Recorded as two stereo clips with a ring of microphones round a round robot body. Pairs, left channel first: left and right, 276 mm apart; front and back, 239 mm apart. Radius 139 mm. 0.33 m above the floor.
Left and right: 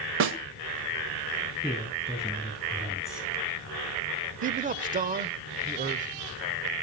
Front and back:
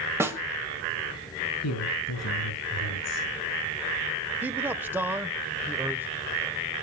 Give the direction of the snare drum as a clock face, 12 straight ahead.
3 o'clock.